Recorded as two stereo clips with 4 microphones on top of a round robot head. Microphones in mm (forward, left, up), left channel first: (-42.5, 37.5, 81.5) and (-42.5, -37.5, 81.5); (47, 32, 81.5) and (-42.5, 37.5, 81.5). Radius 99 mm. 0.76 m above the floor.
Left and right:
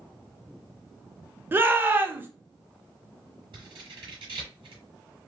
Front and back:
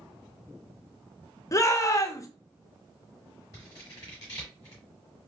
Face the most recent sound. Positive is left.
turn(degrees=-65)